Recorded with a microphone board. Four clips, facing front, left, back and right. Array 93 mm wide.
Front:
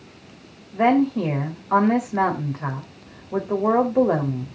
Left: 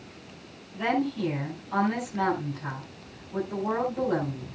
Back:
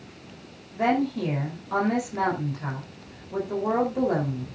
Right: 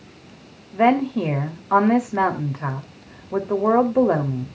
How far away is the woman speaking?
About 3.5 m.